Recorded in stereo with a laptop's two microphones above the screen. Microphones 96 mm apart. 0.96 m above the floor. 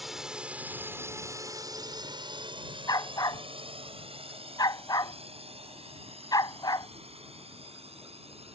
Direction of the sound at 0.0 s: Centre (ahead or behind).